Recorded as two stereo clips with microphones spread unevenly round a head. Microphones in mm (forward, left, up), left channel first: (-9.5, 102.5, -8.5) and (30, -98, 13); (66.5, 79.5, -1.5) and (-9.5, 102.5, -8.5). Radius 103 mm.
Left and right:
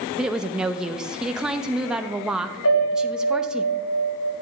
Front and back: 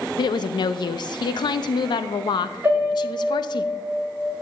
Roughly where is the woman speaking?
Ahead.